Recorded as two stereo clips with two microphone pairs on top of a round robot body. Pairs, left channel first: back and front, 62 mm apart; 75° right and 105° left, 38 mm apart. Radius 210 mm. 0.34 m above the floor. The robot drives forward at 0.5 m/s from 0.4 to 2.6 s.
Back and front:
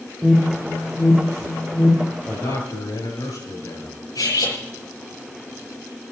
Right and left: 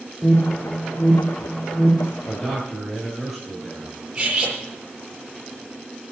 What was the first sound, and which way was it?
An alarm, 95° right.